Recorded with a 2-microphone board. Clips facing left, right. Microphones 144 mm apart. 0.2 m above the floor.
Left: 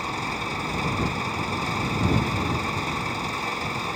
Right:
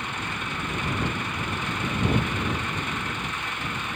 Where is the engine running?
35° left (ahead or behind).